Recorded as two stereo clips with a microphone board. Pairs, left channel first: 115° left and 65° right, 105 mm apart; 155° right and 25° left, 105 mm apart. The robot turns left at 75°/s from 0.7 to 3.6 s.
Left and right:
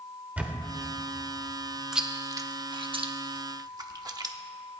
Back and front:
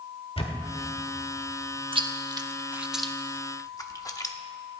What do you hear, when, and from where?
0.4 s a camera shutter: 140° right, 1.4 m
1.9 s chewing: 15° left, 0.8 m; by 4.3 s 110° right, 0.8 m